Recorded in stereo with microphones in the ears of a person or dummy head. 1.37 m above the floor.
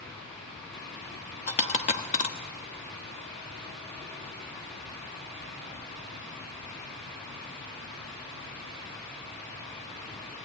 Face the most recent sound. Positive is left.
turn(degrees=40)  # may be behind; listen again after turning